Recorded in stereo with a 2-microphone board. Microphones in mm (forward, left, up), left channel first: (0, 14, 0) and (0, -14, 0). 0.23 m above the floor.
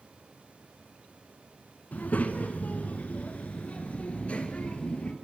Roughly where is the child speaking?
Left.